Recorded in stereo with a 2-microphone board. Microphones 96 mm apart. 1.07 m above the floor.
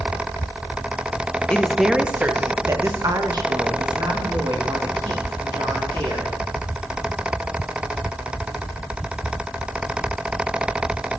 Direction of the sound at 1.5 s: 10° left (ahead or behind).